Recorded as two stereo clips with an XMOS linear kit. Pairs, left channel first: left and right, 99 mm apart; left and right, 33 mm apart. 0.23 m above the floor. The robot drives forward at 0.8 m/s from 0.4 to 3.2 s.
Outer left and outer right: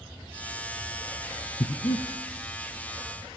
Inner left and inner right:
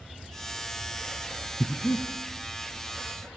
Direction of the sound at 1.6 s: 70° left (ahead or behind).